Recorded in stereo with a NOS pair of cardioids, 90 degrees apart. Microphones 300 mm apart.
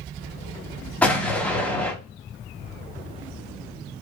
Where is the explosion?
5° left, 1.1 m.